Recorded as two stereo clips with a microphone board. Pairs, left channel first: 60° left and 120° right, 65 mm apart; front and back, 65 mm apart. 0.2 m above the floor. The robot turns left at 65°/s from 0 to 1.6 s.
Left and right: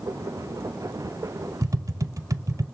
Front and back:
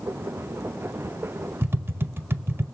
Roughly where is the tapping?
Behind right.